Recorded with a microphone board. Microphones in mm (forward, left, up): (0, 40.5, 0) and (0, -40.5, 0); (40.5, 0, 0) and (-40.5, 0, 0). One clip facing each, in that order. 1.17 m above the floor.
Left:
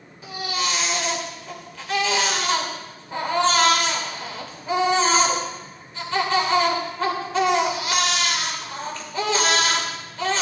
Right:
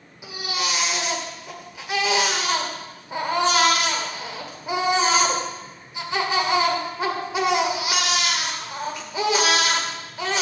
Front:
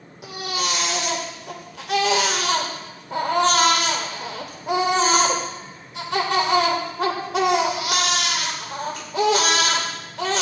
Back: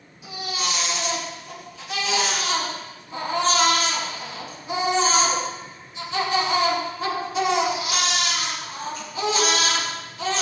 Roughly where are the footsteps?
I don't hear footsteps.